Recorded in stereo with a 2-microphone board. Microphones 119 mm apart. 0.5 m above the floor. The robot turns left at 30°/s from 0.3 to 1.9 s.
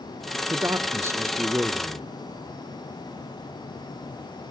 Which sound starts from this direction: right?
A man speaking, at 0.5 s.